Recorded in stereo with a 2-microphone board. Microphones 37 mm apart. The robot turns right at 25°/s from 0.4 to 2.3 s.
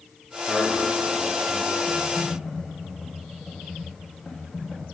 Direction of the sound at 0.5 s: Centre (ahead or behind).